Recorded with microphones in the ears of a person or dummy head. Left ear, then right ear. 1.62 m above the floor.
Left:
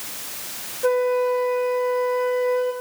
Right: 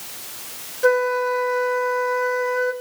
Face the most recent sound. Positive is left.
turn(degrees=-65)  # may be behind; listen again after turning